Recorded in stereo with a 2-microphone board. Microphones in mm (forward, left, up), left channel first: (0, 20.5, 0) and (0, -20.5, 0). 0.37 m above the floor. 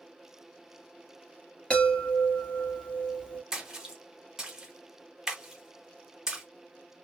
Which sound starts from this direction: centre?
A splash, at 3.5 s.